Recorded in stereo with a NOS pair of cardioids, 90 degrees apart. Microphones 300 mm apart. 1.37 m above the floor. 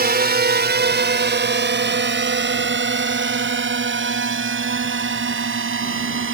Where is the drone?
30° right; by 6.3 s 40° right.